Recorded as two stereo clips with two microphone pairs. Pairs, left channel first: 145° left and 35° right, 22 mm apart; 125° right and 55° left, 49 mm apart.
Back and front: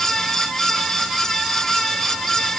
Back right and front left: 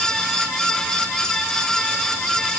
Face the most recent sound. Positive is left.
No sound to turn to.